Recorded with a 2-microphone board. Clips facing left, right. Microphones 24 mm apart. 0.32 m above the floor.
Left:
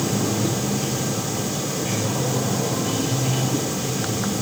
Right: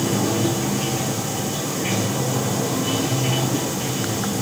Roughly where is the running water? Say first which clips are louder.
Right 2 dB; right.